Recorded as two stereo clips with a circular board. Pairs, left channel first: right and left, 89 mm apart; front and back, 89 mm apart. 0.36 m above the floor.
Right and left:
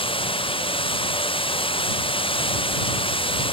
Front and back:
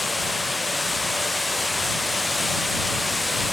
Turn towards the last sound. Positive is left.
turn(degrees=-90)